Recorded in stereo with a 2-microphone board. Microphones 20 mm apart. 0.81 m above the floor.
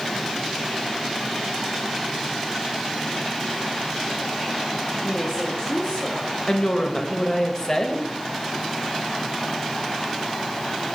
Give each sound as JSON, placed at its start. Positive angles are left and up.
{"t": 5.0, "sound": "a woman speaking", "side_deg": 5, "distance_m": 1.5}
{"t": 6.5, "sound": "a woman speaking", "side_deg": 30, "distance_m": 0.8}